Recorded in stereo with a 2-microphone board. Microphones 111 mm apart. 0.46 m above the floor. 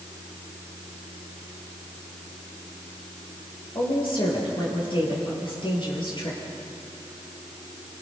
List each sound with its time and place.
3.8 s a woman speaking: 50° left (ahead or behind), 8.5 m